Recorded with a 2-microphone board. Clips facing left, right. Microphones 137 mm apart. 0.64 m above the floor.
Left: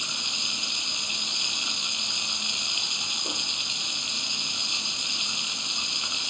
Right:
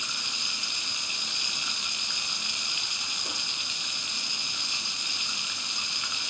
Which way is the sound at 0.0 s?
20° left (ahead or behind).